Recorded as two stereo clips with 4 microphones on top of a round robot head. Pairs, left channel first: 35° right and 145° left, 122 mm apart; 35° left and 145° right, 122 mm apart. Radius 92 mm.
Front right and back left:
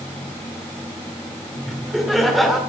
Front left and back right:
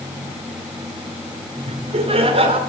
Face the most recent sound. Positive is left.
turn(degrees=-125)